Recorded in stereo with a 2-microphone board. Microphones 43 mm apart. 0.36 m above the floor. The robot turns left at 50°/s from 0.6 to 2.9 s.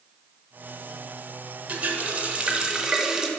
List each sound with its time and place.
1.7 s a running tap: 95° right, 0.7 m; by 3.3 s 155° right, 0.7 m